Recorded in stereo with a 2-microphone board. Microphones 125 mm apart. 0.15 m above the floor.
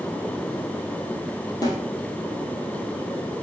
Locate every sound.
1.6 s a snare drum: 30° left (ahead or behind), 2.5 m